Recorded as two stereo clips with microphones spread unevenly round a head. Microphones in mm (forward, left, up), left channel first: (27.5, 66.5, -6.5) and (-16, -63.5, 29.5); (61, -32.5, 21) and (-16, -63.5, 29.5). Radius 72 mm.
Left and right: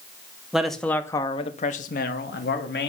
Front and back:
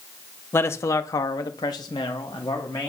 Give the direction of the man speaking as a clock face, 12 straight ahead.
1 o'clock.